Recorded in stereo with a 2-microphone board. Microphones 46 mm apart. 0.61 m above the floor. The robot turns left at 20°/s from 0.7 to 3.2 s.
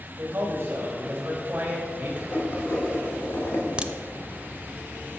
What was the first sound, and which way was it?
A man speaking, 55° right (ahead or behind).